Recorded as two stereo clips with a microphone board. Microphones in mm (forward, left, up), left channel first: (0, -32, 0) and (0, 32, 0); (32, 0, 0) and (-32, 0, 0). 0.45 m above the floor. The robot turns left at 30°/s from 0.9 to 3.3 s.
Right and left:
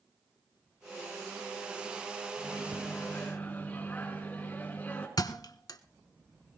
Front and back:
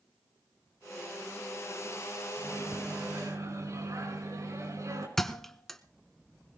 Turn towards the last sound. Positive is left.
turn(degrees=-85)